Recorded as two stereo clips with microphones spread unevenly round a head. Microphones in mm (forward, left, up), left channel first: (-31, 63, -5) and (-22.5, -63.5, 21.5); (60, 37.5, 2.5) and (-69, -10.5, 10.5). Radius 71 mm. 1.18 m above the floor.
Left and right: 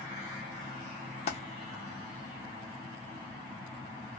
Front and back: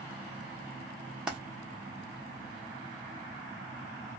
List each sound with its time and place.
1.3 s a dropped coin: 120° left, 0.8 m